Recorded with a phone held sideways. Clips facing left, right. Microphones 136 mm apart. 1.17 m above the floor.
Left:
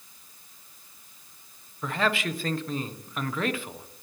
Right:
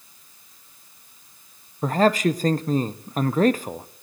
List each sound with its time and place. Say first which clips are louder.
1.8 s a man speaking: right 9 dB; 40° right (ahead or behind), 0.5 m